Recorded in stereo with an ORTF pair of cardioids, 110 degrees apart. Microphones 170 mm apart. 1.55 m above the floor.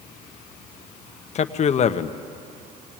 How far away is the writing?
I don't hear writing.